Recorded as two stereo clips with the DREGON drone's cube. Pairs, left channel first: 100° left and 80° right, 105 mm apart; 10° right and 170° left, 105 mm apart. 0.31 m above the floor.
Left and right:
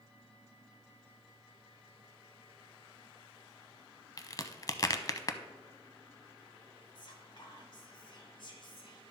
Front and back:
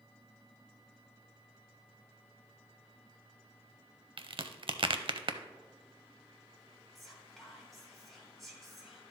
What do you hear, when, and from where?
4.2 s a crack: 145° left, 0.5 m
7.0 s whispering: 80° left, 2.5 m